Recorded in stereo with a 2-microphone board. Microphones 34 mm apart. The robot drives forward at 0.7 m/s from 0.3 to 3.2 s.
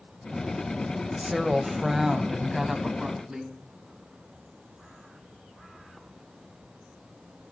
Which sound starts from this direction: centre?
A woman speaking, at 1.2 s.